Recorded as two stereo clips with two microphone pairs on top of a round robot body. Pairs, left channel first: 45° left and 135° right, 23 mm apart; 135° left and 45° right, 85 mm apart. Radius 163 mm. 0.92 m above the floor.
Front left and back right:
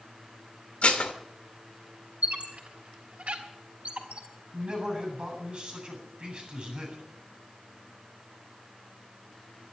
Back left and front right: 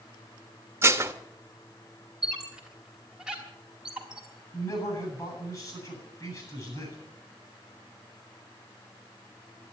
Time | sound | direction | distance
0.8 | dishes clattering | 15° left | 1.1 m
2.2 | a squeak | 130° right | 3 m
4.5 | a man speaking | 175° right | 8 m